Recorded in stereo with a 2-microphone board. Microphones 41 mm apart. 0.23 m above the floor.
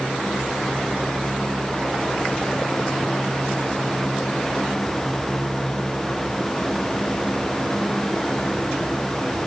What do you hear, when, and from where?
Only background noise.